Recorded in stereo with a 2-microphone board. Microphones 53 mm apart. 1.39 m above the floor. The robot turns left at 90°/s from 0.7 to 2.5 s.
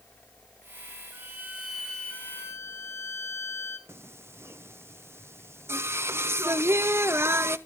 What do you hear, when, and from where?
1.1 s a violin: 120° right, 3.5 m; by 3.8 s 115° left, 3.5 m
3.9 s singing: 55° right (ahead or behind), 0.7 m